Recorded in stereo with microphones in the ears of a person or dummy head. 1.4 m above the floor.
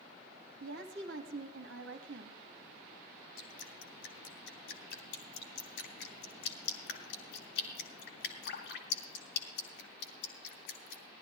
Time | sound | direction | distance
0.6 | a woman speaking | 70° right (ahead or behind) | 2 m
3.4 | dripping | 65° left (ahead or behind) | 2.5 m